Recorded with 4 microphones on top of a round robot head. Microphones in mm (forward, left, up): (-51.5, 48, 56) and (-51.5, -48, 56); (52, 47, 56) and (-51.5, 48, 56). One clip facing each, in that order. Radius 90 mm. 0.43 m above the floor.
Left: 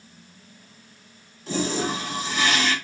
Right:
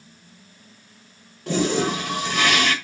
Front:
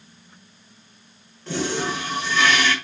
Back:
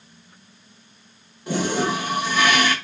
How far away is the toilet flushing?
About 2 m.